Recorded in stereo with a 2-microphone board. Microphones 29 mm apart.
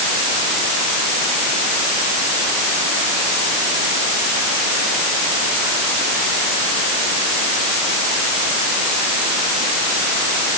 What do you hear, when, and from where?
Only background noise.